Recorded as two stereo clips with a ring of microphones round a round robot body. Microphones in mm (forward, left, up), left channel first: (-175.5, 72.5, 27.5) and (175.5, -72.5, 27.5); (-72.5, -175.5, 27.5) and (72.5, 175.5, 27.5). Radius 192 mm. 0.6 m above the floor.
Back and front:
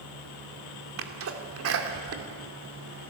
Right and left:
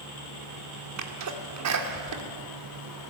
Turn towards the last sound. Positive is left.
turn(degrees=25)